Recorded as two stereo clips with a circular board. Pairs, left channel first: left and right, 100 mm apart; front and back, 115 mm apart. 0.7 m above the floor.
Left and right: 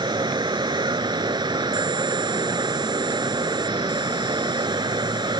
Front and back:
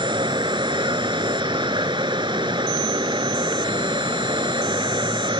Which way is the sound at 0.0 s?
135° right.